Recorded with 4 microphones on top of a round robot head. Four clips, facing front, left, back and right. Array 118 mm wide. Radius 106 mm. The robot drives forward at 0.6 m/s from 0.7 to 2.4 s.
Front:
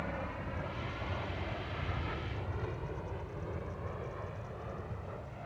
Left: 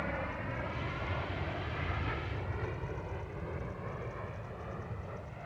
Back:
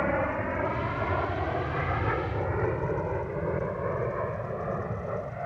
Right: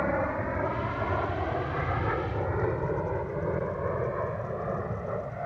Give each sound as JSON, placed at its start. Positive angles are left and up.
{"t": 0.0, "sound": "an aircraft", "azimuth_deg": -135}